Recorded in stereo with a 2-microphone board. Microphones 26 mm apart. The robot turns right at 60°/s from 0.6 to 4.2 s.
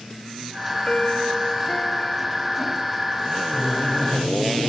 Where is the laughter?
40° left, 3.5 m; by 4.7 s 80° left, 3.5 m.